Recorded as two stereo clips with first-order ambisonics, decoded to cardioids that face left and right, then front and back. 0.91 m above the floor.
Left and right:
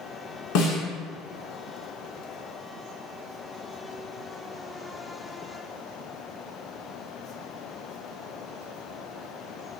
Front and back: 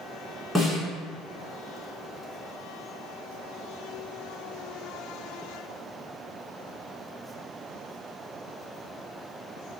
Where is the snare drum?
85° left, 1.9 m.